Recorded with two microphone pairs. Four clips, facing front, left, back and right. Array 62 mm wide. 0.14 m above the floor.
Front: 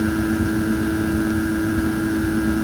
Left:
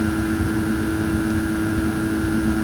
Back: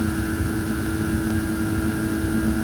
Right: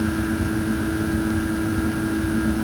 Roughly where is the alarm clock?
I don't hear an alarm clock.